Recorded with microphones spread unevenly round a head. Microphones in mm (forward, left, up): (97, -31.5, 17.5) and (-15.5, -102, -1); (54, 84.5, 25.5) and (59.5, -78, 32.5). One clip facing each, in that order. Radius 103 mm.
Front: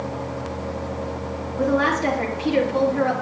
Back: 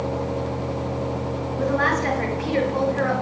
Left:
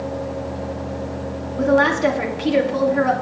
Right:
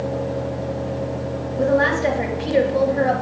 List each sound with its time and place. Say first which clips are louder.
1.6 s a woman speaking: front 3 dB, left 2 dB; 90° left, 1.9 m